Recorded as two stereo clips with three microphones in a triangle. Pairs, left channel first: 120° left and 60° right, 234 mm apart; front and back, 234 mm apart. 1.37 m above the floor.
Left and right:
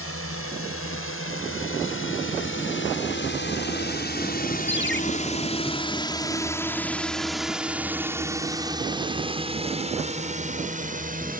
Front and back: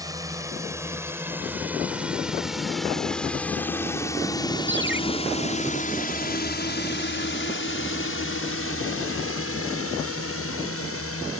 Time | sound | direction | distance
0.0 | a drone | 105° left | ?
4.7 | a ringtone | 150° left | ?